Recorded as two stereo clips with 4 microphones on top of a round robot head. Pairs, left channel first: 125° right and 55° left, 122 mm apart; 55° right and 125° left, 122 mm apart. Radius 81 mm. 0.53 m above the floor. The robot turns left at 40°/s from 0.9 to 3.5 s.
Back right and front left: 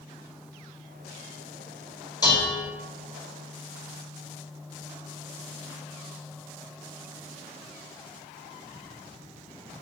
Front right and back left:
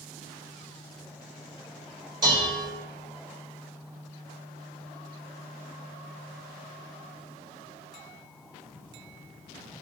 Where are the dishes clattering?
175° left, 1.8 m; by 2.7 s 160° left, 1.8 m.